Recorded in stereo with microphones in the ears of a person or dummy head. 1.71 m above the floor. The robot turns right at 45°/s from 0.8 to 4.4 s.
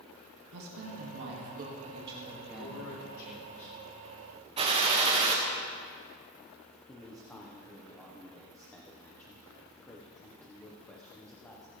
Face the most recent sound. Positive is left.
turn(degrees=10)  # may be behind; listen again after turning